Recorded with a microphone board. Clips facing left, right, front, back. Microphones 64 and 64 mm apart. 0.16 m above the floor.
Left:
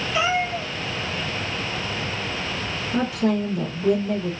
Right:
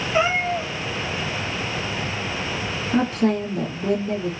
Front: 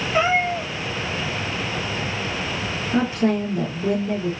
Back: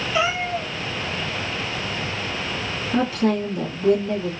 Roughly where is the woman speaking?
Ahead right.